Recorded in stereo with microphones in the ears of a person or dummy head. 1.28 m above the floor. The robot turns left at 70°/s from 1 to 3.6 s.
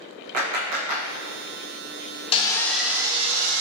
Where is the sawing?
30° left, 0.6 m; by 3.6 s 60° right, 0.6 m.